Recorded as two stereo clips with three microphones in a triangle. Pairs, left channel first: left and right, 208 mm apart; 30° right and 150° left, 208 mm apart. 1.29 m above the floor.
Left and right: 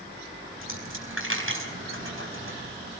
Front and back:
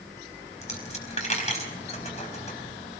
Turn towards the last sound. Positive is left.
turn(degrees=-90)